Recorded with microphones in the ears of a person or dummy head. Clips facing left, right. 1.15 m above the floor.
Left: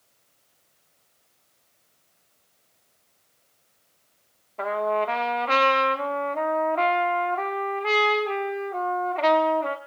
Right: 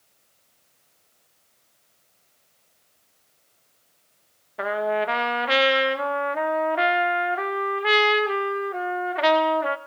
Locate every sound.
4.6 s a trumpet: 15° right (ahead or behind), 0.6 m